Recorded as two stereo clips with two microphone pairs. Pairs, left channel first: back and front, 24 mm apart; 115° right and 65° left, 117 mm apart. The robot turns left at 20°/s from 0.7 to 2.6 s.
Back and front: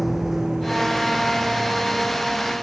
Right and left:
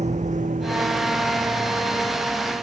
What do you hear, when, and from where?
0.0 s a vehicle: 85° left; by 2.6 s 5° right